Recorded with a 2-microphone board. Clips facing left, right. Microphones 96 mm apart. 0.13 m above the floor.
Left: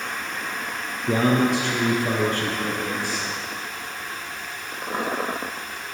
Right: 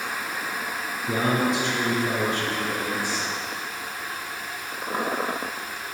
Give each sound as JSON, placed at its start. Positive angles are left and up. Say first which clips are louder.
{"t": 1.1, "sound": "a man speaking", "louder": "left 4 dB", "side_deg": 65, "distance_m": 3.0}